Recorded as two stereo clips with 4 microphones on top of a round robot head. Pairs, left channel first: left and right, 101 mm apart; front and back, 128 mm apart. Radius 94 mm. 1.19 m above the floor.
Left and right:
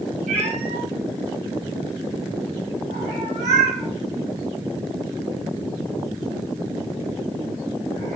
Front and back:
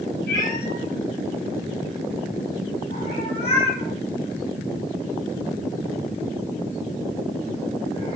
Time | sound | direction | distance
0.3 | a cat meowing | 40° right | 3 m